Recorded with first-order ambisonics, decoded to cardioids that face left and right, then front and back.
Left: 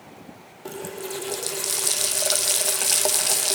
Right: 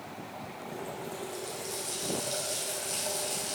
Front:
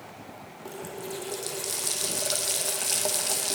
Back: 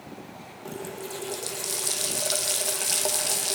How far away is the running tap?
About 0.6 m.